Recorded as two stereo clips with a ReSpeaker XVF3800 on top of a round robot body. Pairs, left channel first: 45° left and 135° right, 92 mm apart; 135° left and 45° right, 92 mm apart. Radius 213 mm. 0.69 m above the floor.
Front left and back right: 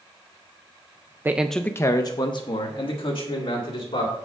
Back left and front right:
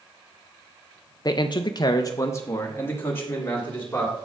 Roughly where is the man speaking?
Behind.